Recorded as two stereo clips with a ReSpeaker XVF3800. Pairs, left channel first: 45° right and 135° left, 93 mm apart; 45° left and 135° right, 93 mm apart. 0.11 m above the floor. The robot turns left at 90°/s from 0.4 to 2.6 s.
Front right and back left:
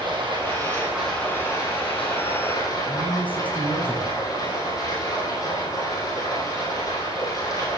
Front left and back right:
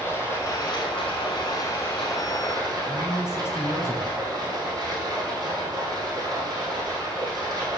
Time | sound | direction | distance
0.0 | running water | 105° left | 3.5 m
2.9 | a man speaking | 15° left | 1.9 m